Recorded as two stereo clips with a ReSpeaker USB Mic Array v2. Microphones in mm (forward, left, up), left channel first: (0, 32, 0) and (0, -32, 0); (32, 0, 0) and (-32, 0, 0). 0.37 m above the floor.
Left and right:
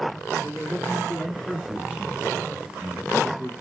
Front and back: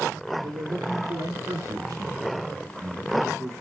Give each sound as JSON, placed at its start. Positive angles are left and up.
{"t": 0.4, "sound": "a man speaking", "azimuth_deg": -175, "distance_m": 7.0}